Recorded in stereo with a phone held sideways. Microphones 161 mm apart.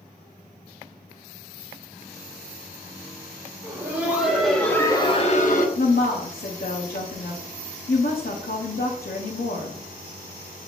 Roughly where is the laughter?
Centre.